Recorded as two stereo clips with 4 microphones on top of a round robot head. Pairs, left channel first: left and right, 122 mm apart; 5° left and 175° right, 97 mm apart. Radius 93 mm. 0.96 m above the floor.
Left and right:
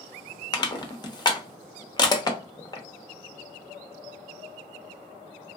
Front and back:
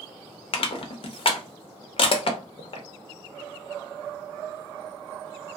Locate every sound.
0.5 s crushing: 35° left, 0.7 m